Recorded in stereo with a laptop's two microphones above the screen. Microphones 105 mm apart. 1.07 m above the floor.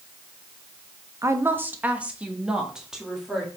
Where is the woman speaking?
30° right (ahead or behind), 0.7 m; by 3.5 s 5° right (ahead or behind), 2 m.